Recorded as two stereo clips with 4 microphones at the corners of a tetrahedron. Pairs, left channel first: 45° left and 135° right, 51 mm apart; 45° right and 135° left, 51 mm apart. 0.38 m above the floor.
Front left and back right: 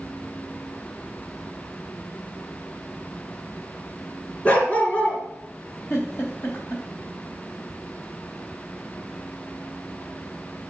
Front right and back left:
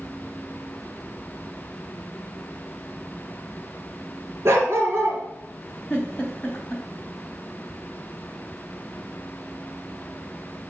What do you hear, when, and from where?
4.5 s a dog barking: 105° left, 2.5 m
5.9 s a giggle: 20° left, 3 m